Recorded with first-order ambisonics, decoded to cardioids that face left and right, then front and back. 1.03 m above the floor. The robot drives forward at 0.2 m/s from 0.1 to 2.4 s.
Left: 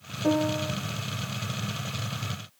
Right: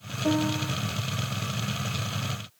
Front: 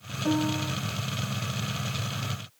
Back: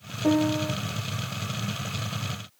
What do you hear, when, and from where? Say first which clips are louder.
0.2 s a piano: left 1 dB, back 4 dB; 160° left, 1.2 m